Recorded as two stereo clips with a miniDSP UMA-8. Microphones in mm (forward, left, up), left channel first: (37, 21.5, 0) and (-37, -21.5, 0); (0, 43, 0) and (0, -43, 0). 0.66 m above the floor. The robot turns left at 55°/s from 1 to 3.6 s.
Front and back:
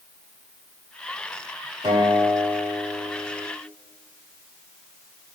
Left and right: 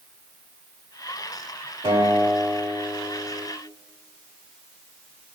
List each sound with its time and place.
1.8 s a guitar: 115° right, 2 m; by 3.5 s 155° left, 2 m